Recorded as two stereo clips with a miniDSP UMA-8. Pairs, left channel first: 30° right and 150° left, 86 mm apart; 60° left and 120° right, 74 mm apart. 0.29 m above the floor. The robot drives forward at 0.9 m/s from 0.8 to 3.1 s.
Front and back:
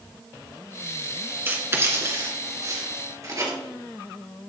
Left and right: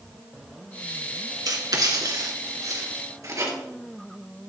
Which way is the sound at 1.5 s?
150° right.